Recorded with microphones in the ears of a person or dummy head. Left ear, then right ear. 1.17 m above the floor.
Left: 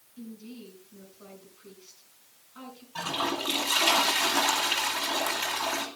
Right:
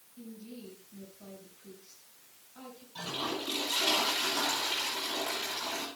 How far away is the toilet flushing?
About 3 m.